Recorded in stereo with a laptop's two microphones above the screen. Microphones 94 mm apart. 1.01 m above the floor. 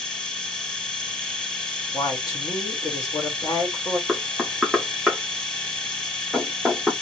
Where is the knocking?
Centre (ahead or behind), 1.1 m.